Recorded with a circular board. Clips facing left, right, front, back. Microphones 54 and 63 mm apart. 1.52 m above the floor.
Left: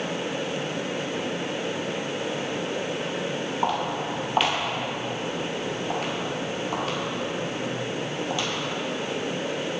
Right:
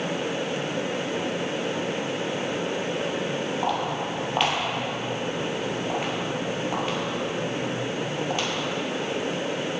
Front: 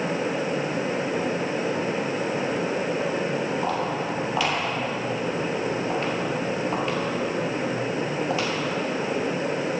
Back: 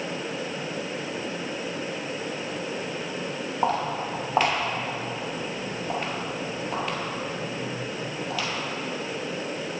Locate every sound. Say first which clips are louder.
3.6 s footsteps: left 3 dB, even; 165° left, 2.5 m; by 8.5 s 60° right, 2.5 m